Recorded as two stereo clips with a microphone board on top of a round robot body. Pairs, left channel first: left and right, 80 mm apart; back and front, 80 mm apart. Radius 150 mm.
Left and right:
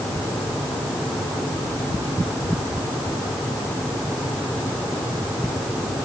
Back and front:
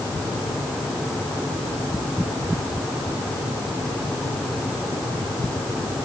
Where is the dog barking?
I don't hear a dog barking.